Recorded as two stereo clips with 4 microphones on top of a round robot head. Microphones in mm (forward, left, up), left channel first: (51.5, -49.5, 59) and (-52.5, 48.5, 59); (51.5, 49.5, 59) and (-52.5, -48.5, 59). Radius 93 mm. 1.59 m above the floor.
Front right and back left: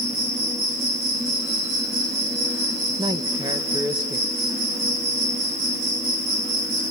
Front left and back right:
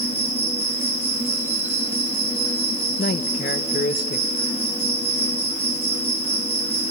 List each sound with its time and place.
0.0 s an insect: 145° left, 5.5 m
3.0 s a man speaking: 75° left, 1.2 m